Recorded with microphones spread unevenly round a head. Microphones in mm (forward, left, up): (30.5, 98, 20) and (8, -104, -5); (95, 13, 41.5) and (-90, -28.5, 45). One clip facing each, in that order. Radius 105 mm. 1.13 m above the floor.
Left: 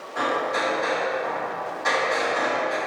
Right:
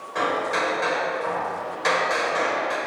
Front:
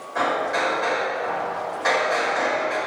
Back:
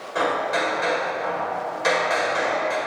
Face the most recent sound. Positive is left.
turn(degrees=-115)